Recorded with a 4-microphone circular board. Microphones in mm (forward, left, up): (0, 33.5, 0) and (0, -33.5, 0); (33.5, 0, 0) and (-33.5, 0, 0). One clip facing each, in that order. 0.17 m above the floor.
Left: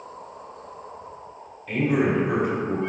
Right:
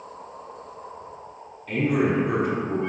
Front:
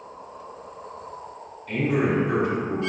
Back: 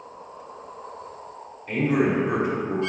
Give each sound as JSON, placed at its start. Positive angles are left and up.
{"t": 1.7, "sound": "a man speaking", "azimuth_deg": 165, "distance_m": 1.2}